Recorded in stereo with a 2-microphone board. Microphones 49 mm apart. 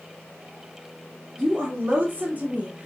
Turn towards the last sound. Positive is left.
turn(degrees=-20)  # may be behind; listen again after turning